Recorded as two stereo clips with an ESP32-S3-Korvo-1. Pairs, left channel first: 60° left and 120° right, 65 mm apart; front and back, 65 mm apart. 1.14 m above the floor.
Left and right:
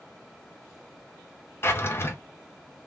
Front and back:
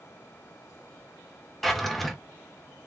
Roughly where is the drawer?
Left.